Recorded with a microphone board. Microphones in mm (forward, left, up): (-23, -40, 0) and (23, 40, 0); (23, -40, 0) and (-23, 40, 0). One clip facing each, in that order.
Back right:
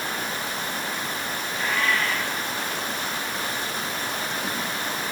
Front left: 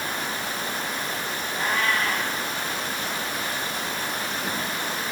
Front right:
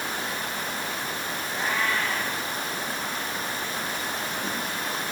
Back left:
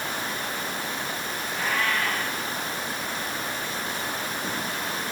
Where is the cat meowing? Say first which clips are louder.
Even, even; 10° left, 9.5 m.